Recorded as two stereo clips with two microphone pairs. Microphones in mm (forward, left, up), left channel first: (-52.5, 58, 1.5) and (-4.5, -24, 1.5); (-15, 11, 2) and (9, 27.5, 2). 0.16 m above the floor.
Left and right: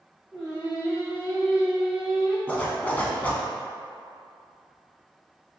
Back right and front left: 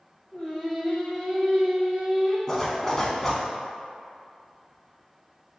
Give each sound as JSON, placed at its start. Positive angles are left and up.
{"t": 0.3, "sound": "singing", "azimuth_deg": -130, "distance_m": 1.8}
{"t": 2.5, "sound": "a zipper", "azimuth_deg": 160, "distance_m": 0.6}